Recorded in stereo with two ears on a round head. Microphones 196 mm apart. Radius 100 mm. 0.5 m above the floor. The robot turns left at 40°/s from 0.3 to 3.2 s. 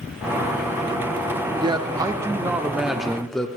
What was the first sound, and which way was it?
A man speaking, 20° right (ahead or behind).